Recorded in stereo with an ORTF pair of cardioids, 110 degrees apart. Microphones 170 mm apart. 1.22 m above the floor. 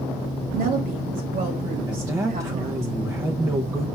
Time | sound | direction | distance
0.5 | a woman speaking | 60° right | 3 m
1.9 | a man speaking | 20° right | 0.8 m